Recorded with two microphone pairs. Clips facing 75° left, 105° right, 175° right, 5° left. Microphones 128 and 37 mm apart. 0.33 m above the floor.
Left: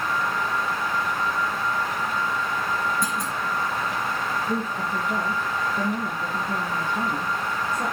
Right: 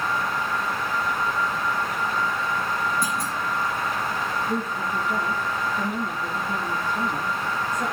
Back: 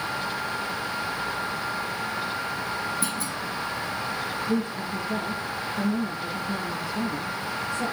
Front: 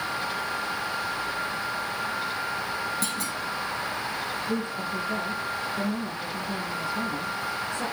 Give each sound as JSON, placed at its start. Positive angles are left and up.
{"t": 3.0, "sound": "a clunk", "azimuth_deg": 10, "distance_m": 3.0}
{"t": 4.5, "sound": "a woman speaking", "azimuth_deg": 55, "distance_m": 8.0}